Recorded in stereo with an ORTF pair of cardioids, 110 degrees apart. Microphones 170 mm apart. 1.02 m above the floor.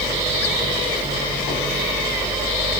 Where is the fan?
30° right.